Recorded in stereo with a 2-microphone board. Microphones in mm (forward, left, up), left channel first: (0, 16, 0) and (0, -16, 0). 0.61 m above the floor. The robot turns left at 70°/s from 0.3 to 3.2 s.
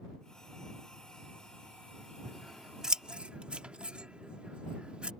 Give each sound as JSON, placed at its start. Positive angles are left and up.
{"t": 2.2, "sound": "scissors", "side_deg": 10}